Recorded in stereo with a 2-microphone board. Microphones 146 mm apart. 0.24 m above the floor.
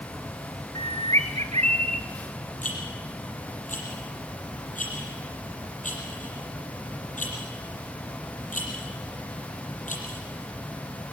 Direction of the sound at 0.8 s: 50° right (ahead or behind).